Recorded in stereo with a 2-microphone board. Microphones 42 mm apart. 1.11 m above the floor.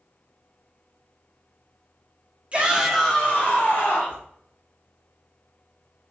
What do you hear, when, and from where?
2.5 s a shout: 30° right (ahead or behind), 0.8 m; by 4.2 s 60° left (ahead or behind), 1.4 m